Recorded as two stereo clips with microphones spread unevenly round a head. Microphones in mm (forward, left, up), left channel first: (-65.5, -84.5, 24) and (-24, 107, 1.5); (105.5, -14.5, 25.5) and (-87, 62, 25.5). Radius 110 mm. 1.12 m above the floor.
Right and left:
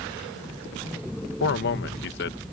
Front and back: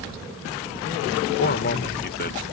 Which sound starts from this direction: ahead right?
A man speaking, at 1.4 s.